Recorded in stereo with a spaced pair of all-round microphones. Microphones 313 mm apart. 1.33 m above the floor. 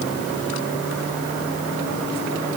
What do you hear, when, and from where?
Only background noise.